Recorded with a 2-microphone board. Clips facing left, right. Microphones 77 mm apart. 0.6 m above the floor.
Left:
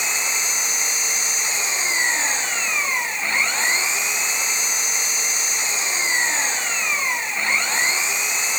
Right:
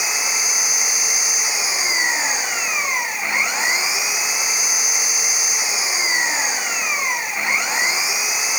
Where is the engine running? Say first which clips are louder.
Right 1 dB; 10° right (ahead or behind).